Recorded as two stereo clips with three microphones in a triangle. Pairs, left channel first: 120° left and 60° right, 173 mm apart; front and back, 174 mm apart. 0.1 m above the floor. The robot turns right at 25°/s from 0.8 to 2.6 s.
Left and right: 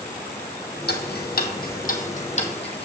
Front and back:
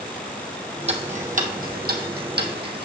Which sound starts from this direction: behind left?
Ticking, at 0.9 s.